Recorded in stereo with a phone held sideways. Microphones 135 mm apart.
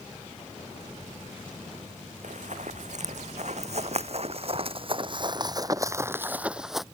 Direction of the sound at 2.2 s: 65° right (ahead or behind).